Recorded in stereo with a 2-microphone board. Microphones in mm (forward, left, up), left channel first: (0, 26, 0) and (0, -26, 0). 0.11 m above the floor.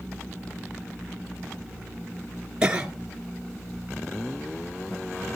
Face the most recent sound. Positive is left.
turn(degrees=-15)  # may be behind; listen again after turning